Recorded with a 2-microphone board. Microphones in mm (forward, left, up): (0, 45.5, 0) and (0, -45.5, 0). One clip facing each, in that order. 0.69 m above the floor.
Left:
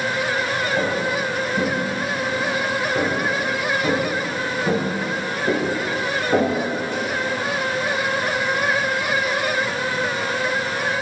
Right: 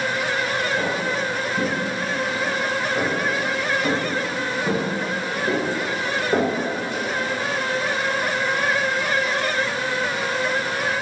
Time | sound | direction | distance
0.8 | footsteps | 50° left (ahead or behind) | 1.1 m